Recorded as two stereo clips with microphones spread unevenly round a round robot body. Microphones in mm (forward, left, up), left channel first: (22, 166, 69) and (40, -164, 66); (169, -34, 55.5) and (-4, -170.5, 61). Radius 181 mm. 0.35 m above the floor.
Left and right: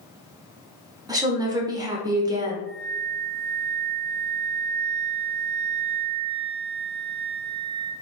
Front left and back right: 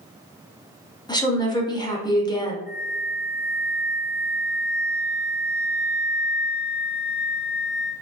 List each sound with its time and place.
1.1 s a woman speaking: 15° right, 1.0 m
2.7 s a flute: 65° right, 1.1 m